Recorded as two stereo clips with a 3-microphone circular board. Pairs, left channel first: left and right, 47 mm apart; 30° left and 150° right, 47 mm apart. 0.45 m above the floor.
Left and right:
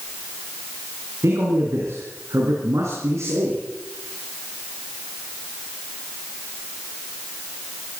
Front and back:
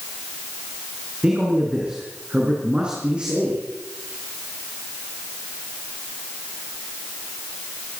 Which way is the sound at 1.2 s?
80° right.